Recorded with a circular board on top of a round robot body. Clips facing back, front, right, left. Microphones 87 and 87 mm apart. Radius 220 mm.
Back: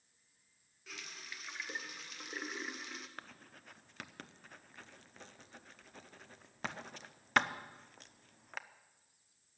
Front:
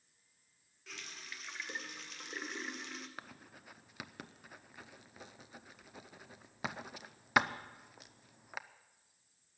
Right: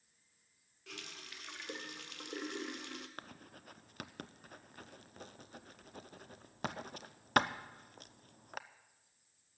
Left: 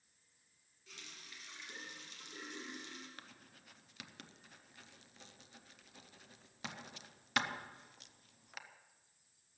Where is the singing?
I don't hear singing.